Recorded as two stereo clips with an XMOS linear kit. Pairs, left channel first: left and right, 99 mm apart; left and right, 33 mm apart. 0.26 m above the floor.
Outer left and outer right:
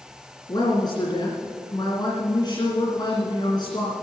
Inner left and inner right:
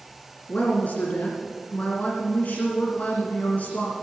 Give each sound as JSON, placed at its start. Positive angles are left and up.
{"t": 0.5, "sound": "a woman speaking", "side_deg": 50, "distance_m": 2.5}